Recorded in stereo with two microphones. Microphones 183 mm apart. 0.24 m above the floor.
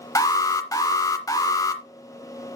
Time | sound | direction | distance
0.1 | an alarm | 20° left (ahead or behind) | 0.7 m